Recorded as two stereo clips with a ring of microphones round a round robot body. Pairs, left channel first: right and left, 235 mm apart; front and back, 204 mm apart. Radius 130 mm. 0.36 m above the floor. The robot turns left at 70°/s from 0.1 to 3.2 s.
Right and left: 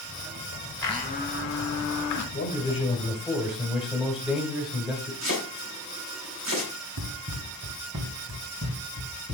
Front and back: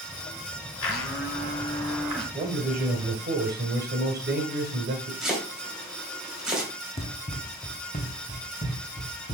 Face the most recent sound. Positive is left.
turn(degrees=55)